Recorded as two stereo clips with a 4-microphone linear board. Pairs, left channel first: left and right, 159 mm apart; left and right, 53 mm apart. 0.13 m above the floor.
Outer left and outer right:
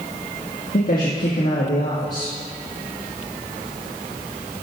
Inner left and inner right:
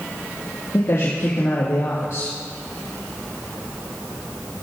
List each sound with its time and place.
0.7 s a man speaking: 70° left (ahead or behind), 4 m